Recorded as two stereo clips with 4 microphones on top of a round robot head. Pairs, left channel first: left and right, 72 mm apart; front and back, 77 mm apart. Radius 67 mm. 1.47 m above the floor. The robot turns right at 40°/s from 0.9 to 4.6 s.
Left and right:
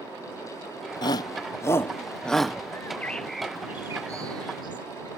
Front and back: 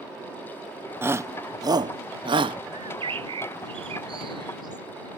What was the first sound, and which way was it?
A shout, 120° left.